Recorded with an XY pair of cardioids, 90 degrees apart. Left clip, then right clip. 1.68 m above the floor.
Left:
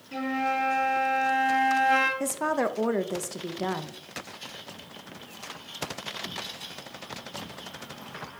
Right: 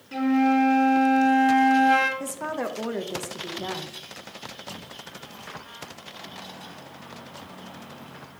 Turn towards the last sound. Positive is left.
turn(degrees=35)